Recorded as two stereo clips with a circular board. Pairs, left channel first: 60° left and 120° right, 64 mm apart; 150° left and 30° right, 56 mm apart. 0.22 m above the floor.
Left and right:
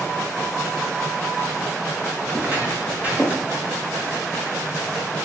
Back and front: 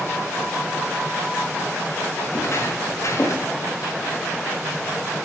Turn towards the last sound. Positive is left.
turn(degrees=165)